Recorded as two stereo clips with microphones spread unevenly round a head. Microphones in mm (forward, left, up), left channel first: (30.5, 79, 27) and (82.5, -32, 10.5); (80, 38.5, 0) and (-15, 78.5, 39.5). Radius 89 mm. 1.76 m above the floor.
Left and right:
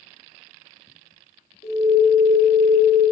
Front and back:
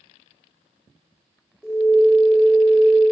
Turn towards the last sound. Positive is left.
turn(degrees=55)